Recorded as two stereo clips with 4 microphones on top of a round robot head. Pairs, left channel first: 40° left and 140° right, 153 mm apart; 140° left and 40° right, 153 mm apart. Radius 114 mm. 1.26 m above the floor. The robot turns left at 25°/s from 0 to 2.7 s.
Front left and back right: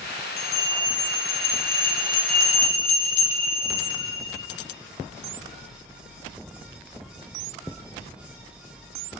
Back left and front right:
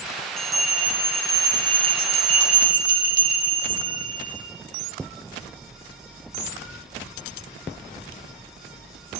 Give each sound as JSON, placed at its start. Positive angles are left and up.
{"t": 0.4, "sound": "a bell", "azimuth_deg": 55, "distance_m": 4.5}